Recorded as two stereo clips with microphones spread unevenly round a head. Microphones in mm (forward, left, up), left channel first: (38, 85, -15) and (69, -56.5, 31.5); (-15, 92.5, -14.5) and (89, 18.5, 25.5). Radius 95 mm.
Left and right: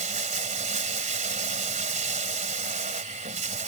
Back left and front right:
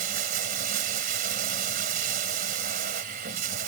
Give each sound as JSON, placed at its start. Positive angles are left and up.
{"t": 0.0, "sound": "running water", "azimuth_deg": -45}